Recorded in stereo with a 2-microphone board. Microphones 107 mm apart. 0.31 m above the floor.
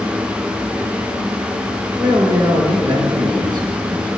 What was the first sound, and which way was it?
A man speaking, 45° right (ahead or behind).